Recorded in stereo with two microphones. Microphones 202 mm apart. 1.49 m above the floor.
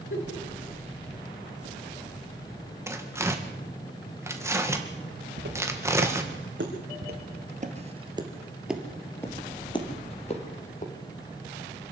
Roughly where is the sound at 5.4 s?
Right.